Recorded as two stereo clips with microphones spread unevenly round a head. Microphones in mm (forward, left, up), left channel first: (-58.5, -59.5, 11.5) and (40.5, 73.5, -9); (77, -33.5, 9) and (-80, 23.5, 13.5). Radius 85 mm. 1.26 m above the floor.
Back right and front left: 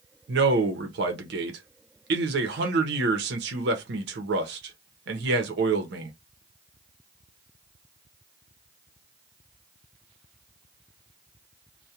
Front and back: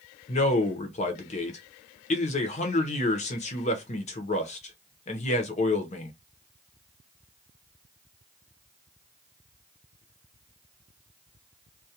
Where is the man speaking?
30° left, 0.7 m.